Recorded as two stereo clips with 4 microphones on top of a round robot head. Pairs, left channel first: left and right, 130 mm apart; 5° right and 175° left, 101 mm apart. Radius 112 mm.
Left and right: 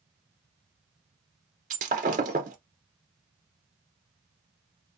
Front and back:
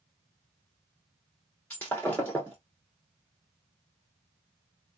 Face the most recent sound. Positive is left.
turn(degrees=-85)